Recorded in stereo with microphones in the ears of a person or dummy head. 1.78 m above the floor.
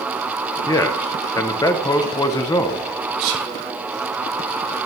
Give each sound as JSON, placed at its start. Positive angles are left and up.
{"t": 0.7, "sound": "a man speaking", "side_deg": 15, "distance_m": 0.9}
{"t": 3.2, "sound": "whispering", "side_deg": -80, "distance_m": 1.9}